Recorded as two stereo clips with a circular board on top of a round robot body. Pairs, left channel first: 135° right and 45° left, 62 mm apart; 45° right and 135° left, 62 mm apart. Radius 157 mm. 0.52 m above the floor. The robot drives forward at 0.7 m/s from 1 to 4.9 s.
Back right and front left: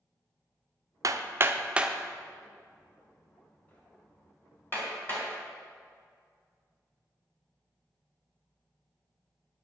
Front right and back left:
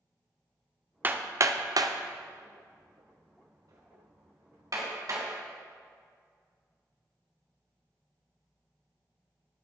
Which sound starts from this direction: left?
Hammering, at 1.0 s.